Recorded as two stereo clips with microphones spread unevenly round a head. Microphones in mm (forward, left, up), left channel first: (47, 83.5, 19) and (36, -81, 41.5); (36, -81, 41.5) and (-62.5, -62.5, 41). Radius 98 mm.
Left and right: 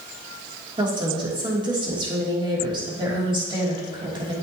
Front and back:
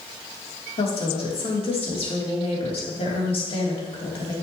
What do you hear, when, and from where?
0.8 s a woman speaking: 30° right, 3 m